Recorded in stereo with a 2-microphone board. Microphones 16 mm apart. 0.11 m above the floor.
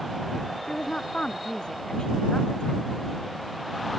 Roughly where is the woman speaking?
Left.